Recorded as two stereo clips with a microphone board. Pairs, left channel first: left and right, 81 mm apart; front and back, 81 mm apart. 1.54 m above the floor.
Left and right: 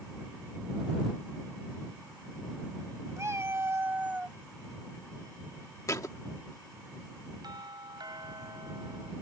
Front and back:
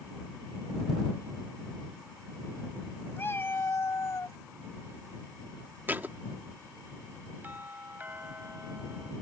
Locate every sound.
3.2 s a cat meowing: 55° right; by 4.4 s 20° right
5.9 s a thud: 120° left
7.4 s a doorbell: 115° right